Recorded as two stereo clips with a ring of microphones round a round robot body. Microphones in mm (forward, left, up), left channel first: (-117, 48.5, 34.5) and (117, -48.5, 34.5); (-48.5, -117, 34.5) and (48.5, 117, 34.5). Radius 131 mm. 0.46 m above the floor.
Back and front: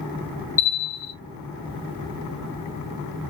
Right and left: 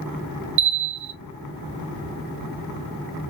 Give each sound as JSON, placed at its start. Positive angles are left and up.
{"t": 0.6, "sound": "a bell", "azimuth_deg": 80, "distance_m": 0.8}